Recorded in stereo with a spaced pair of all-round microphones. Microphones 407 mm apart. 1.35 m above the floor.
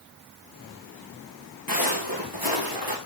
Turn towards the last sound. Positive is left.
turn(degrees=55)  # may be behind; listen again after turning